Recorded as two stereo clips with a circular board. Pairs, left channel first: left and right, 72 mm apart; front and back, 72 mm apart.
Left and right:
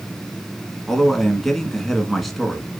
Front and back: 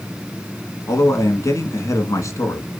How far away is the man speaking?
About 1.6 m.